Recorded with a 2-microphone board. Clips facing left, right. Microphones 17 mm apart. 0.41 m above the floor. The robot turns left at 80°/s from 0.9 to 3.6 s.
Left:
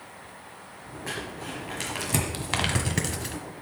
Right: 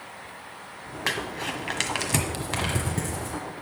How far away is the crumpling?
About 1.4 m.